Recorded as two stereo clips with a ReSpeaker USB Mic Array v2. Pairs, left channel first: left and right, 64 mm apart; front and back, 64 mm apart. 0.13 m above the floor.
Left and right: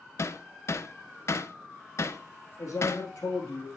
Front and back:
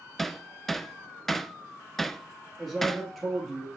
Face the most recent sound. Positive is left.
turn(degrees=85)